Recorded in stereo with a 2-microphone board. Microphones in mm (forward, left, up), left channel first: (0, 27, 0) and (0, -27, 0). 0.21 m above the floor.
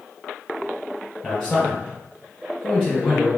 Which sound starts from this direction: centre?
A man speaking, at 1.2 s.